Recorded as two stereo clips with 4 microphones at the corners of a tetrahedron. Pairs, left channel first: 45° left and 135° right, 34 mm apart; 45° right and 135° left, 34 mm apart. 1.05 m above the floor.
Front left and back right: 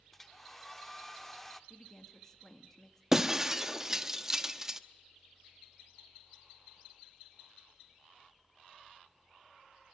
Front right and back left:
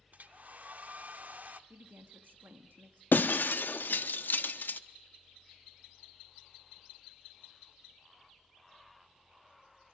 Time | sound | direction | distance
0.1 | a hair dryer | 125° left | 0.9 m
1.7 | a woman speaking | 120° left | 1.8 m
3.1 | breaking glass | 60° right | 0.9 m